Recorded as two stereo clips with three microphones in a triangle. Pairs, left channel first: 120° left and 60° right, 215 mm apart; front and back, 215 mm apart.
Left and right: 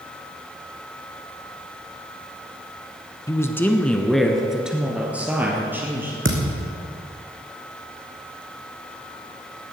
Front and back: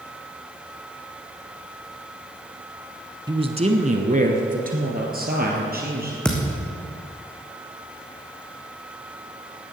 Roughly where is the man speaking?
Behind.